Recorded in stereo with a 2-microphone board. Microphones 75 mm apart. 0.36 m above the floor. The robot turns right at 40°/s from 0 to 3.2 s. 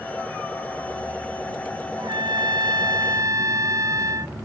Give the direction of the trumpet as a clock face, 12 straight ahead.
3 o'clock.